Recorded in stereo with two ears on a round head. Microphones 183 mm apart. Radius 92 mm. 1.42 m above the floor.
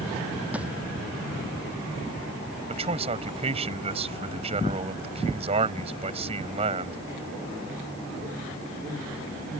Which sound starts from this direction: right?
A man speaking, at 2.7 s.